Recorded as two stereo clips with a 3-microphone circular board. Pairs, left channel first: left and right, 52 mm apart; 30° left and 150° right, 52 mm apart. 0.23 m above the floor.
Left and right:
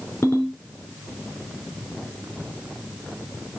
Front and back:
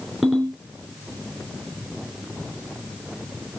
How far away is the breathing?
No breathing in this recording.